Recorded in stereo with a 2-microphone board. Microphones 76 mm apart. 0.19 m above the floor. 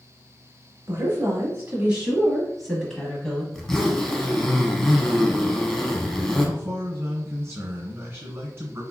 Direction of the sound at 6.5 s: 30° right (ahead or behind).